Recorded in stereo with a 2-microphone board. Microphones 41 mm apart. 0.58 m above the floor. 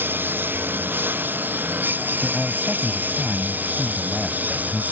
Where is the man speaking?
5° left (ahead or behind).